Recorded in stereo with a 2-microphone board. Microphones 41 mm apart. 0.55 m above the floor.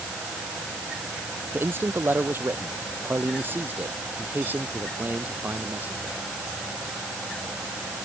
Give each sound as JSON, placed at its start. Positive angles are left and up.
{"t": 1.5, "sound": "a man speaking", "side_deg": -65}